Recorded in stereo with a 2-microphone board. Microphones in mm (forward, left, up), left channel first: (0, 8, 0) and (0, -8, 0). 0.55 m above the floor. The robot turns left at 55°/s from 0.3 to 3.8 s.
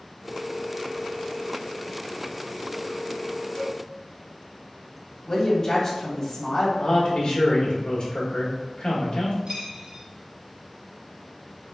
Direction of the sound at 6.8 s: 60° left (ahead or behind).